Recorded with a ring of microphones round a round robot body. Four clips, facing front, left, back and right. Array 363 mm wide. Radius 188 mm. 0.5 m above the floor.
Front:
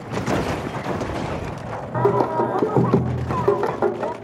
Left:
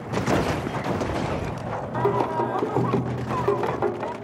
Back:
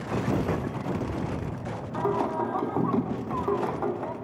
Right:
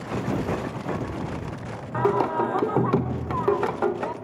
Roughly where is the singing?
Ahead.